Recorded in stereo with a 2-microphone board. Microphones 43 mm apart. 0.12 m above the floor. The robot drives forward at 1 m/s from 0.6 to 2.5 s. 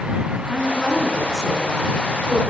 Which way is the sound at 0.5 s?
15° left (ahead or behind).